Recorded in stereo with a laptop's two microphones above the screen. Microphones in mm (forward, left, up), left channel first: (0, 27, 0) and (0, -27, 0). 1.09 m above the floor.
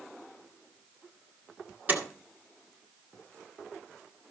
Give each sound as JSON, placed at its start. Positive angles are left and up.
{"t": 1.9, "sound": "a door slam", "side_deg": -40, "distance_m": 2.5}